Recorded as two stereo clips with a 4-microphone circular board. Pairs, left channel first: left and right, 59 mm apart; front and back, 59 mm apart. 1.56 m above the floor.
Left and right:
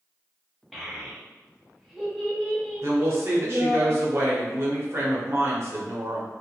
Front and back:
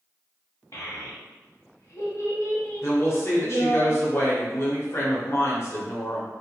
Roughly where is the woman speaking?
Ahead right.